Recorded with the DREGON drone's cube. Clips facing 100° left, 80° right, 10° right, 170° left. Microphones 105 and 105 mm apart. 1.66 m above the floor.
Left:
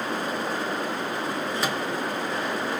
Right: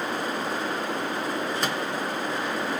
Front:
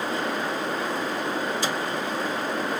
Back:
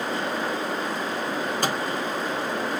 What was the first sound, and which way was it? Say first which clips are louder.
A microwave: left 3 dB, back 1 dB; 170° right.